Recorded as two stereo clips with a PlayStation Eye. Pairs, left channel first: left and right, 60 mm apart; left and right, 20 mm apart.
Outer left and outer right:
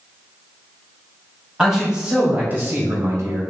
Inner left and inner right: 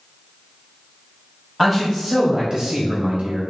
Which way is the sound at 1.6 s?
10° right (ahead or behind).